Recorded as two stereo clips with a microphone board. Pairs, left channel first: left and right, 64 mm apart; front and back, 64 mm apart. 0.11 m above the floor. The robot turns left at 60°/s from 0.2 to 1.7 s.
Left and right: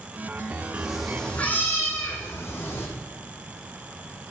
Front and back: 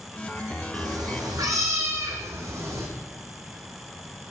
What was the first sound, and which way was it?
A cat meowing, 165° right.